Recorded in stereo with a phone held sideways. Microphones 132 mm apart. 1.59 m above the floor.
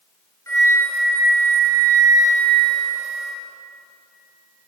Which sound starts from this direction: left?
A flute, at 0.5 s.